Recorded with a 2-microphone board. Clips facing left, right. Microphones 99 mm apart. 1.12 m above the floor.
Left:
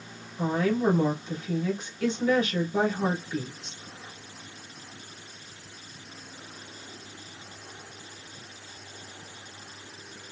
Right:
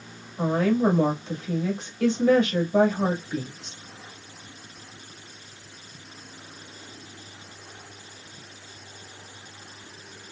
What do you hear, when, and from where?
0.4 s a woman speaking: 75° right (ahead or behind), 1.8 m